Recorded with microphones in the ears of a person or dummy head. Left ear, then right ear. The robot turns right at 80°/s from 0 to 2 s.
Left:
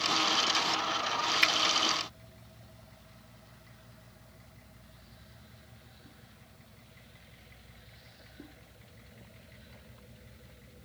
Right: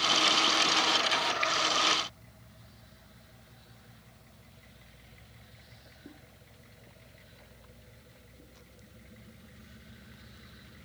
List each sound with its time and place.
1.4 s a finger snap: 35° left (ahead or behind); by 1.5 s 25° left (ahead or behind)